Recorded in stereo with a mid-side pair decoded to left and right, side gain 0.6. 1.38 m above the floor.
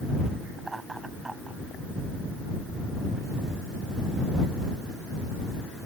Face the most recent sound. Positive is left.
turn(degrees=-15)